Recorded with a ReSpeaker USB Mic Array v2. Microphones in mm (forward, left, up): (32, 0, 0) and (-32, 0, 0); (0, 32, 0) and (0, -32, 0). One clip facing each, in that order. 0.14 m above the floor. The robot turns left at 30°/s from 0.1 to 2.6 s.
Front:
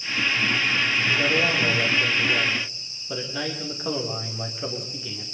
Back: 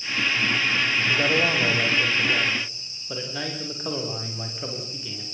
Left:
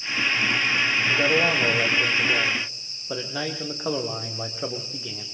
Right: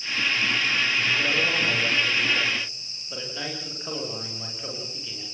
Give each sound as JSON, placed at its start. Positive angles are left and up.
{"t": 1.1, "sound": "a man speaking", "azimuth_deg": 135, "distance_m": 8.0}